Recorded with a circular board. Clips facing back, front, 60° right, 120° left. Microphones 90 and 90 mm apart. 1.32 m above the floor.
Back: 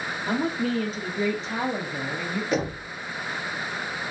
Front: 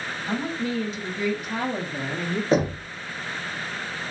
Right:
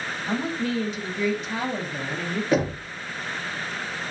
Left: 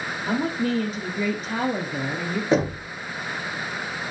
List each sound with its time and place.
0.3 s a woman speaking: 165° left, 1.0 m; by 2.4 s 50° left, 0.6 m
2.5 s knocking: 55° left, 0.6 m